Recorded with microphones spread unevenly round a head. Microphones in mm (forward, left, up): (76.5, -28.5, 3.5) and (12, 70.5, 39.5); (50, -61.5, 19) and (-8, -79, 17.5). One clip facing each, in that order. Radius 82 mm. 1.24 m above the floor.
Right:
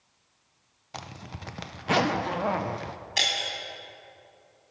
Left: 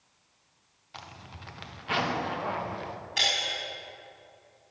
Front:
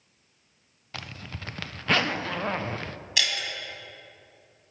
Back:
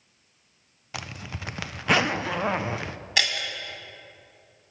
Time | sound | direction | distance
0.9 | a zipper | 85° right | 0.6 m
3.2 | breaking glass | 115° right | 2.5 m